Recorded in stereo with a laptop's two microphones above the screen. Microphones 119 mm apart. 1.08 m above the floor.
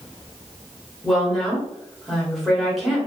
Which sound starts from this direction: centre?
A woman speaking, at 1.0 s.